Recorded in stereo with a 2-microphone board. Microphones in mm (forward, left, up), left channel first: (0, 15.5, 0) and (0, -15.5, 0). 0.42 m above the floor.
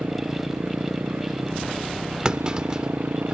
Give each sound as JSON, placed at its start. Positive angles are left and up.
{"t": 0.0, "sound": "a motorcycle", "side_deg": -80}
{"t": 2.2, "sound": "a clunk", "side_deg": -25}